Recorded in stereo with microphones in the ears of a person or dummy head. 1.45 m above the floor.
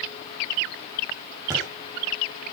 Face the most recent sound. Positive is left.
turn(degrees=-15)  # may be behind; listen again after turning